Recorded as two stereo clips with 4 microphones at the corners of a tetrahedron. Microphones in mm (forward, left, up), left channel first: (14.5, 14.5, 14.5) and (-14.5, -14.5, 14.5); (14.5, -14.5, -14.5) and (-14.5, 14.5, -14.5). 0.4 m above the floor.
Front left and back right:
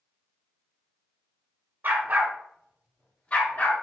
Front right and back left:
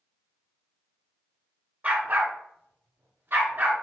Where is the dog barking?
170° right, 1.4 m; by 3.7 s 90° left, 1.8 m.